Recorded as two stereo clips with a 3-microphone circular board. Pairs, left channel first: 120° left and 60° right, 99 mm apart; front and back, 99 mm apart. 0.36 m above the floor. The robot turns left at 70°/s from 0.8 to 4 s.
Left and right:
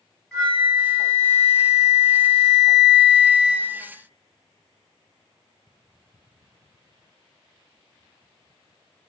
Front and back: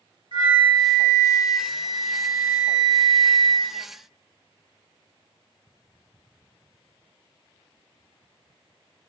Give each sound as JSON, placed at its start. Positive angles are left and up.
{"t": 0.3, "sound": "a flute", "azimuth_deg": -160, "distance_m": 1.3}